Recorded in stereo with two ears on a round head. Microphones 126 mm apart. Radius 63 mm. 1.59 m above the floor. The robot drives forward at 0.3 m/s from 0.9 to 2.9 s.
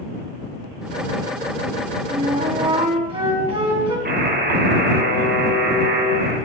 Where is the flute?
45° right (ahead or behind), 4 m; by 4.0 s 40° right (ahead or behind), 4 m.